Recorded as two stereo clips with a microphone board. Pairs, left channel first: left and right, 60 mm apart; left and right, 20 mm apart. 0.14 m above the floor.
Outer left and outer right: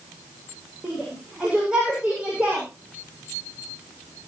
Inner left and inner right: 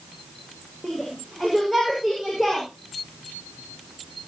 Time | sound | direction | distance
0.8 | a shout | 10° right (ahead or behind) | 9 m